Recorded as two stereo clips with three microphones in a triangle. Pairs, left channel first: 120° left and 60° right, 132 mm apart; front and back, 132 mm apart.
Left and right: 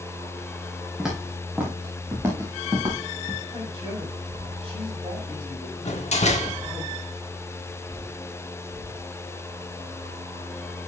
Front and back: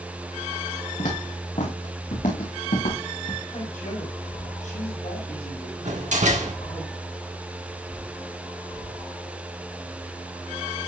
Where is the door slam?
155° left, 1.3 m.